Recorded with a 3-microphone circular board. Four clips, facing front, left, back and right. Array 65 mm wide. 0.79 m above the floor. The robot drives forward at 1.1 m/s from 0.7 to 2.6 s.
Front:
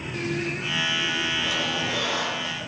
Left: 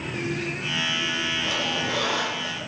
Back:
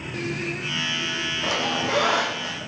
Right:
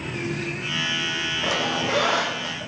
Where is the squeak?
125° right, 3 m; by 2.6 s 140° right, 4 m.